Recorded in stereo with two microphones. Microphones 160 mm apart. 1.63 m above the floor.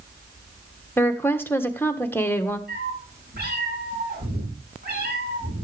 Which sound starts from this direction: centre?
A woman speaking, at 1.0 s.